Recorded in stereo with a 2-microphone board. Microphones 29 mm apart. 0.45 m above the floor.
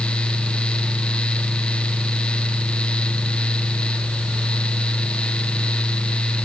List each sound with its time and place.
Only background noise.